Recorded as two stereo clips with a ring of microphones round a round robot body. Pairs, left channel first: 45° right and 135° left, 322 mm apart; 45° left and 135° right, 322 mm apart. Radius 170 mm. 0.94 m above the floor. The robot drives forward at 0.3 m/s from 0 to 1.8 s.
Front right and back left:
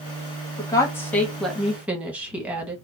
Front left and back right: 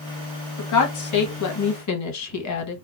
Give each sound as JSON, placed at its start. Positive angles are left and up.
{"t": 0.6, "sound": "a woman speaking", "azimuth_deg": 35, "distance_m": 1.1}